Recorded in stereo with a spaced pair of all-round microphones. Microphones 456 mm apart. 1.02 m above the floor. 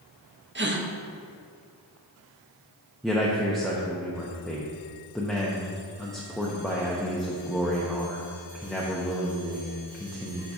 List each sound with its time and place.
0.6 s a gasp: 25° right (ahead or behind), 0.6 m
3.0 s a man speaking: centre (ahead or behind), 0.7 m